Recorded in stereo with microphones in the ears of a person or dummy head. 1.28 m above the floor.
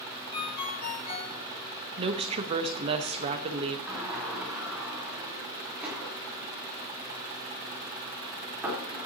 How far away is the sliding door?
About 4 m.